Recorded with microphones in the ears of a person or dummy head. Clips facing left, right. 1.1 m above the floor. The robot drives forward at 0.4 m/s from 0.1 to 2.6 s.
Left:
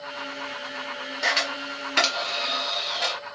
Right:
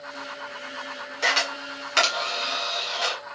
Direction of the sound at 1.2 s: 60° right (ahead or behind).